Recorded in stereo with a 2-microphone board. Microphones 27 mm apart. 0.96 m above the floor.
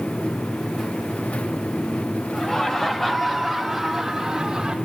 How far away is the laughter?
About 1.9 m.